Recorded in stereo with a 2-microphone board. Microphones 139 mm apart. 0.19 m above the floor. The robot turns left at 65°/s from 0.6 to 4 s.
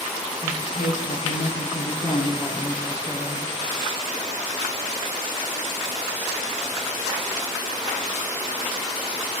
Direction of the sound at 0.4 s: 135° left.